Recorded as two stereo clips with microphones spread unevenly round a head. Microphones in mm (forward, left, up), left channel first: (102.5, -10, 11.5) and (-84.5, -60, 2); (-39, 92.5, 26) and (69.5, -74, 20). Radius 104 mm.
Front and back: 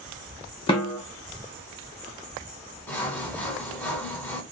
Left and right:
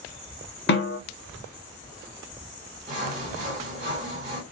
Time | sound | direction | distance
0.7 | a snare drum | 85° left | 0.8 m
2.9 | sawing | 55° right | 1.5 m